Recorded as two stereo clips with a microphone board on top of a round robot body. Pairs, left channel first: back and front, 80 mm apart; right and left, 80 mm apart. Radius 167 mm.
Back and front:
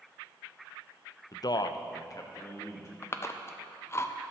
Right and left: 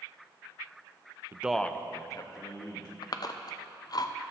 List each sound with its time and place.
1.3 s a man speaking: 145° left, 0.7 m; by 2.9 s 125° right, 2 m
3.0 s chewing: 125° right, 0.7 m